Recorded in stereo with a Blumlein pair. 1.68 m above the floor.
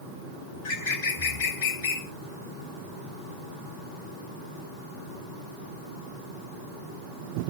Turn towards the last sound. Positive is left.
turn(degrees=50)